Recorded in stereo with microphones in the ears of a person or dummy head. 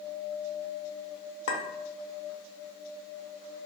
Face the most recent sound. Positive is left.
turn(degrees=60)  # may be behind; listen again after turning